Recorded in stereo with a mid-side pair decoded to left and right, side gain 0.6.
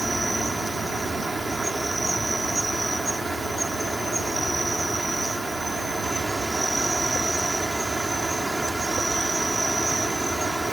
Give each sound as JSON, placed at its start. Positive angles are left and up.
{"t": 0.0, "sound": "an insect", "azimuth_deg": -15}